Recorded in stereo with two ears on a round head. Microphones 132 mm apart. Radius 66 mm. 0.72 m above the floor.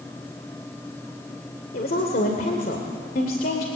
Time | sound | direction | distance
1.7 | a woman speaking | 70° left (ahead or behind) | 2.5 m